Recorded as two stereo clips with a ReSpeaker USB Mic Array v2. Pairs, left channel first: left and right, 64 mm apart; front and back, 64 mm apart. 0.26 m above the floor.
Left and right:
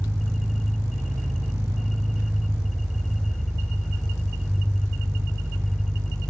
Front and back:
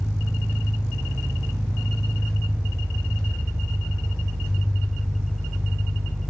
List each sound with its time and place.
0.0 s an engine running: 100° right, 2.5 m